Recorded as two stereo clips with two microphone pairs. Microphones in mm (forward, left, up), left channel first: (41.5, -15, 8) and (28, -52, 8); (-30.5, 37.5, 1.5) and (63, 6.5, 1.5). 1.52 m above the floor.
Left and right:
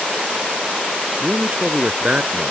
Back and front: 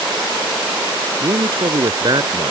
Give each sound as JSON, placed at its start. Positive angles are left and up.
{"t": 1.2, "sound": "a man speaking", "azimuth_deg": -60}